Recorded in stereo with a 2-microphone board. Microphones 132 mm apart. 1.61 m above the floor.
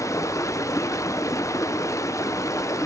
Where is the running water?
25° left (ahead or behind), 0.8 m.